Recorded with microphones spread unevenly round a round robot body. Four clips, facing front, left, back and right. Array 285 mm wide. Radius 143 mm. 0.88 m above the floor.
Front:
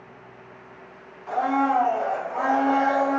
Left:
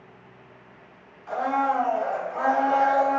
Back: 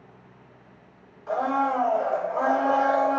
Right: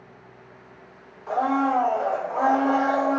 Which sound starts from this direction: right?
A blender, at 1.3 s.